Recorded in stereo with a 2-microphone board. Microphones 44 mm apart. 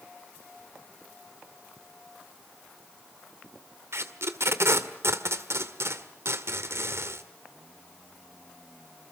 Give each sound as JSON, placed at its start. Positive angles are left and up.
{"t": 3.9, "sound": "tape being pulled", "side_deg": -70, "distance_m": 1.7}